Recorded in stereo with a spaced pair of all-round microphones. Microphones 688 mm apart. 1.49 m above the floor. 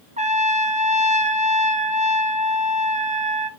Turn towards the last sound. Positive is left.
turn(degrees=-10)  # may be behind; listen again after turning